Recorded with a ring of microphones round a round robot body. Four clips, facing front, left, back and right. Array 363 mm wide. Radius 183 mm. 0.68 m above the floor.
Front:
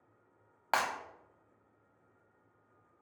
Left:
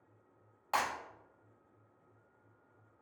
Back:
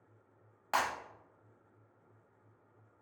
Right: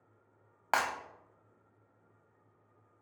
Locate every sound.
0.7 s breaking glass: 55° right, 0.6 m